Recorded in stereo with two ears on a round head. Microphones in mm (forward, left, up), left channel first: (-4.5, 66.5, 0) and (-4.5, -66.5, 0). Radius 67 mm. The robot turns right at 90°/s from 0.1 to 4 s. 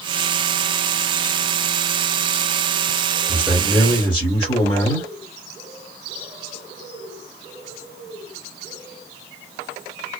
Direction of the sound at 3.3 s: 35° right.